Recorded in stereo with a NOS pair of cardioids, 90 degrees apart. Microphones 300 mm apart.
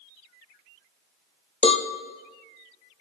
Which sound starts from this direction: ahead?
A cowbell, at 1.6 s.